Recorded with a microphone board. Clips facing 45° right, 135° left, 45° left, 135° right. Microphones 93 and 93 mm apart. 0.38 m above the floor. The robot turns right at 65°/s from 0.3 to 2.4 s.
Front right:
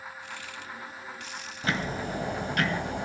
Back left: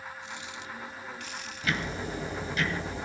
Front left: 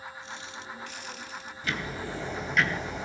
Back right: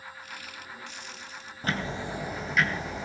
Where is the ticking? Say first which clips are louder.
Front right 2 dB, back right 3 dB; 100° right, 2.5 m; by 3.1 s 50° right, 2.5 m.